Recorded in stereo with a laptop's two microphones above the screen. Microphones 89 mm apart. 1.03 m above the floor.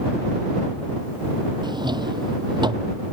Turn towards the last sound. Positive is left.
turn(degrees=-50)  # may be behind; listen again after turning